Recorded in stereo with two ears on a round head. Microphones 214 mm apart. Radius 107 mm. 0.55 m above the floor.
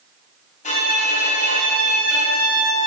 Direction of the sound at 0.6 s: 30° left (ahead or behind).